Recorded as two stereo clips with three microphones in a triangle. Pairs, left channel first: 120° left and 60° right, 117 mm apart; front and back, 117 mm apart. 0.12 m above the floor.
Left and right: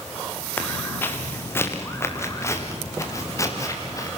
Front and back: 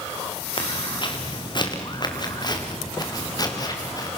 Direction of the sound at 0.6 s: 45° left.